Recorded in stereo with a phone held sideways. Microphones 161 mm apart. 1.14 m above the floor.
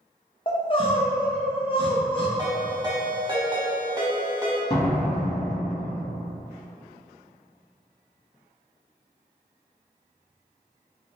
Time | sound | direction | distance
0.5 | crying | 35° left (ahead or behind) | 0.6 m
2.4 | a ringtone | 30° right (ahead or behind) | 1.0 m
4.7 | a door slam | 40° left (ahead or behind) | 1.5 m